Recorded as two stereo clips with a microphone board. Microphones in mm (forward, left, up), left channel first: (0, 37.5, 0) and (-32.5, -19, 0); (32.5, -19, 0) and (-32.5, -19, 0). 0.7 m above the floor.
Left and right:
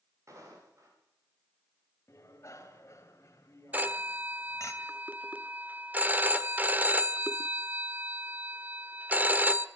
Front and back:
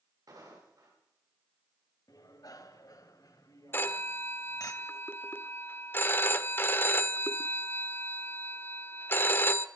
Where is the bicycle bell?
20° left, 2.5 m.